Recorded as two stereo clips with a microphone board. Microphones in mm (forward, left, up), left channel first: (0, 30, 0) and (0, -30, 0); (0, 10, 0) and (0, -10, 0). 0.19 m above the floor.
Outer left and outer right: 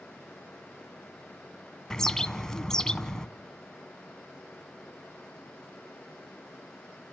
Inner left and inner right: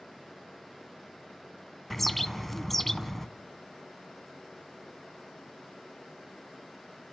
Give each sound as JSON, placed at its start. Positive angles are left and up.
{"t": 1.9, "sound": "a bird", "side_deg": 10, "distance_m": 0.6}